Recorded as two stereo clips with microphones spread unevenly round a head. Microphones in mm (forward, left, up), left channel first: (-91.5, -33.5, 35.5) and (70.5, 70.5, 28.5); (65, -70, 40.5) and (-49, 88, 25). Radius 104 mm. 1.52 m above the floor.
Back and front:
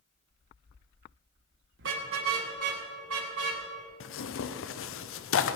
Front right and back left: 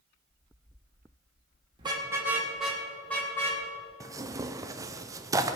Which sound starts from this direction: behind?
Tearing paper, at 4.0 s.